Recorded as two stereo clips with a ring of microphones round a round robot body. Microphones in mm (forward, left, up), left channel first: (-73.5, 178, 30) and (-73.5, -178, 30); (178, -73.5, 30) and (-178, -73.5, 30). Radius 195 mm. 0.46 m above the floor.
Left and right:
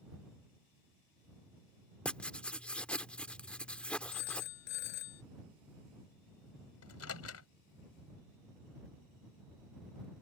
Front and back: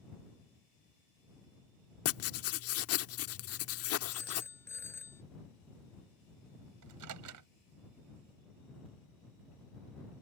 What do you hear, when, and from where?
2.0 s writing: 5° left
4.1 s a phone ringing: 85° left
6.8 s a microwave: 135° left